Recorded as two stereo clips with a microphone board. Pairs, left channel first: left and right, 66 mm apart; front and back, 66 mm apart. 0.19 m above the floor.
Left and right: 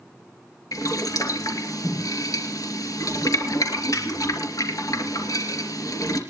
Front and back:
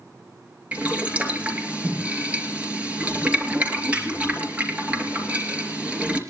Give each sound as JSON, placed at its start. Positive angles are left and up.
{"t": 0.7, "sound": "boiling", "azimuth_deg": 110, "distance_m": 3.5}